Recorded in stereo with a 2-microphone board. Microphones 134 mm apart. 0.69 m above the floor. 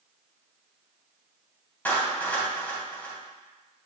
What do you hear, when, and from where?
1.9 s a clap: 15° left (ahead or behind), 3 m